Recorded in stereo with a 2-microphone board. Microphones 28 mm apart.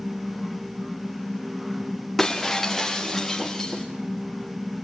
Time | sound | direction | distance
2.2 | breaking glass | 10° left (ahead or behind) | 3.5 m